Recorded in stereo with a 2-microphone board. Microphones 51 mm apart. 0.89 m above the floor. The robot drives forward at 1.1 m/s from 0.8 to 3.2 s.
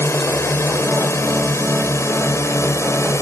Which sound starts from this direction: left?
A drone, at 0.0 s.